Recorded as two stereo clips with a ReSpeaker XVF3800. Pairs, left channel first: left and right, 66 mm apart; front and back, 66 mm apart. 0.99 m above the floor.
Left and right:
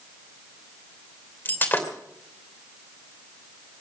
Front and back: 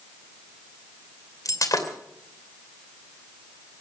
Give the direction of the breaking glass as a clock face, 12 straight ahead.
11 o'clock.